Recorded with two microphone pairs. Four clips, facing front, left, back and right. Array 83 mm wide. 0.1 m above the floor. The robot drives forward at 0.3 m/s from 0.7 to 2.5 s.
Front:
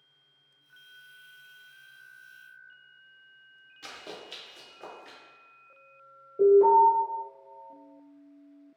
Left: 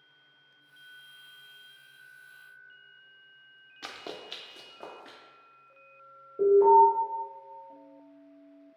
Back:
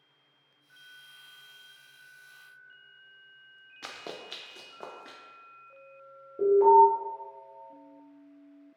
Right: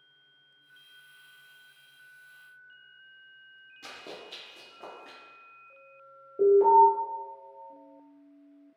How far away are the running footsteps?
About 0.8 m.